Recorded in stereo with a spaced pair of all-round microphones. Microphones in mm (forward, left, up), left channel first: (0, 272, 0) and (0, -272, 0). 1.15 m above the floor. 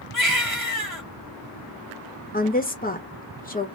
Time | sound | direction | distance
0.1 | a baby crying | 35° right (ahead or behind) | 1.9 m
2.3 | a woman speaking | 15° left (ahead or behind) | 1.0 m